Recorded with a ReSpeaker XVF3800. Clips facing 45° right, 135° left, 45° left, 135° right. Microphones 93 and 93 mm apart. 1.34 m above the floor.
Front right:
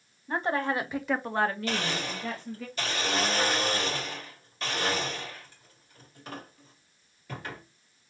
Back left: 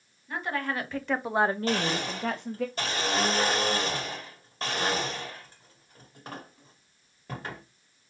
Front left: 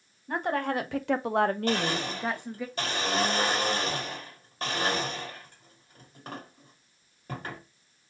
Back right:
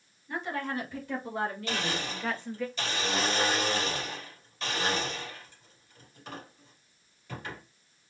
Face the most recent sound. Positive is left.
turn(degrees=85)